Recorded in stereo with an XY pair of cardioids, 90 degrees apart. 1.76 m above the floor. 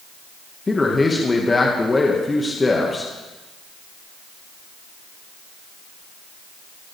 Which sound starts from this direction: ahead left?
A man speaking, at 0.7 s.